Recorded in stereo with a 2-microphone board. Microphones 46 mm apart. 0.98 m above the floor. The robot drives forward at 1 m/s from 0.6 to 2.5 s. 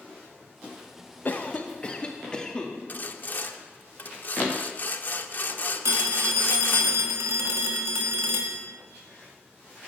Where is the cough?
40° left (ahead or behind), 0.7 m; by 2.7 s 15° left (ahead or behind), 1.8 m.